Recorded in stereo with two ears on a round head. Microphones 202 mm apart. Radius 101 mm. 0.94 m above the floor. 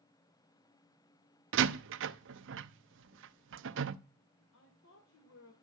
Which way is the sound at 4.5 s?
60° left (ahead or behind).